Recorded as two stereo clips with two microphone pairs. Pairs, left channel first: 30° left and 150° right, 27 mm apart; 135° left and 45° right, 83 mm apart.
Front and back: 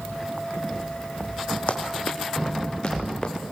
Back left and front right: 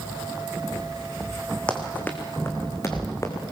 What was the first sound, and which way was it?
Running footsteps, 60° left.